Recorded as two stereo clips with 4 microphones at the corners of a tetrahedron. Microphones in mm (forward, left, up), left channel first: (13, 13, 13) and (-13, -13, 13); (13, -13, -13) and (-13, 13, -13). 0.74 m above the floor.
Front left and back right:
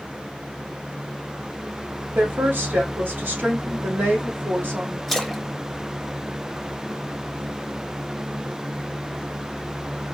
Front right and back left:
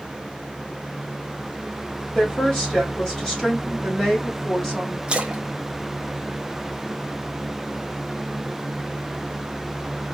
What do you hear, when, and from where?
2.1 s a woman speaking: 115° right, 3 m
5.1 s a splash: 130° left, 1.0 m